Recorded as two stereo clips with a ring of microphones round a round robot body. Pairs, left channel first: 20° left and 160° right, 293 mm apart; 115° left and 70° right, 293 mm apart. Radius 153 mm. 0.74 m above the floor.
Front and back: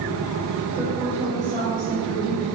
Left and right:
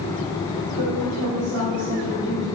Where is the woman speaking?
75° right, 3 m; by 2.5 s 95° right, 5 m.